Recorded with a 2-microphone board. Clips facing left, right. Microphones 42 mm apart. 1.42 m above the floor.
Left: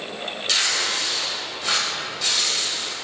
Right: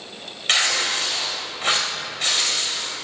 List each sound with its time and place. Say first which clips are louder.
0.5 s tearing paper: right 3 dB; 50° right (ahead or behind), 2.5 m